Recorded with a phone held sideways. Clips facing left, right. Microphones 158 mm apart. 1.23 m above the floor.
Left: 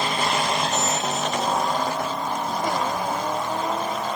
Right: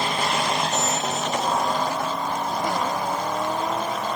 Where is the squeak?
65° right (ahead or behind), 3 m.